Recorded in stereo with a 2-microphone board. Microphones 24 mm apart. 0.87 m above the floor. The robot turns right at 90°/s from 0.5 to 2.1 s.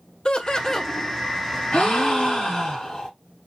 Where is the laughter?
140° left, 0.6 m; by 0.9 s straight behind, 0.6 m.